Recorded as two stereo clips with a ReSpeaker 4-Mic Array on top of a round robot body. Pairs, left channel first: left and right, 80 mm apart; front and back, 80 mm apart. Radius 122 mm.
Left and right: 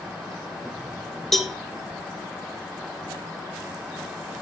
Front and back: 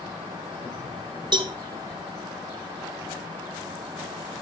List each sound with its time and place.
1.3 s a cowbell: 175° left, 1.4 m